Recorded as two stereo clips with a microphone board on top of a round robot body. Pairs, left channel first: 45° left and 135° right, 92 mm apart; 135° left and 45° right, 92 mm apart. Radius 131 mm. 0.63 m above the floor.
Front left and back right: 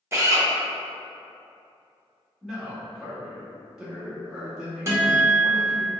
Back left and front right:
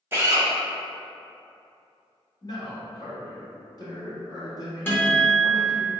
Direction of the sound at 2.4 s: 145° left.